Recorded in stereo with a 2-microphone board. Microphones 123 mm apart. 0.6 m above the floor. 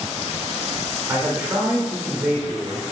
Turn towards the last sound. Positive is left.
turn(degrees=-20)  # may be behind; listen again after turning